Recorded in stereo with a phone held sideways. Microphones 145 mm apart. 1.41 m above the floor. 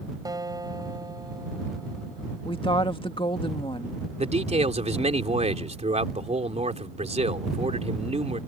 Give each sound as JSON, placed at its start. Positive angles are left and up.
{"t": 0.2, "sound": "a guitar", "side_deg": -25}
{"t": 2.5, "sound": "a woman speaking", "side_deg": 35}
{"t": 4.2, "sound": "a man speaking", "side_deg": -50}